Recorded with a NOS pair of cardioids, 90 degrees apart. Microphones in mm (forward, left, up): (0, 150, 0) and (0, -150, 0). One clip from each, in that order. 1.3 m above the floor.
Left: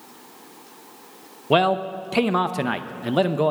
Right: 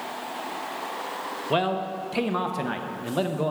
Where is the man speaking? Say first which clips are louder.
Left 7 dB; 30° left, 0.6 m.